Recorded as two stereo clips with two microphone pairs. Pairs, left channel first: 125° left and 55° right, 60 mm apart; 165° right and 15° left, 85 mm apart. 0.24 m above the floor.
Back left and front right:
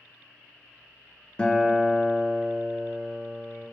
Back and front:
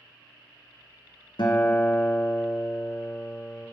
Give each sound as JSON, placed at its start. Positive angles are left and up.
{"t": 1.4, "sound": "a guitar", "azimuth_deg": -165, "distance_m": 0.6}